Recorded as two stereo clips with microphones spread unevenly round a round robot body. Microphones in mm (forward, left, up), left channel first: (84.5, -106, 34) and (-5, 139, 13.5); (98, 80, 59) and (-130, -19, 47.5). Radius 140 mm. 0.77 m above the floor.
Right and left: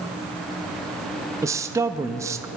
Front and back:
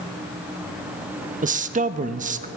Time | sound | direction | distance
1.4 | a man speaking | 175° left | 0.6 m